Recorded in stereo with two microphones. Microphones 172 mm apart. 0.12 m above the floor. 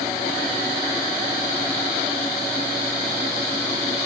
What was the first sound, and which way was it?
Only background noise.